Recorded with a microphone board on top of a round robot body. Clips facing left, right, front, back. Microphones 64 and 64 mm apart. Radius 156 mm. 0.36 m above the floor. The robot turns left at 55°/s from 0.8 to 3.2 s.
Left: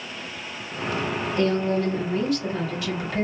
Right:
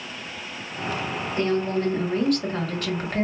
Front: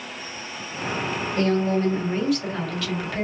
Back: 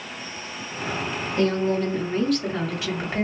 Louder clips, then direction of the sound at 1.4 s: Left 1 dB, even; 30° right.